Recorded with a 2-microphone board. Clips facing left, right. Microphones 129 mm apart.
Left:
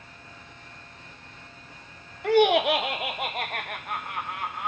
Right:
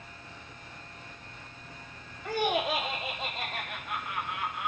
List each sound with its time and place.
2.2 s laughter: 70° left (ahead or behind), 0.9 m; by 4.7 s 40° left (ahead or behind), 1.6 m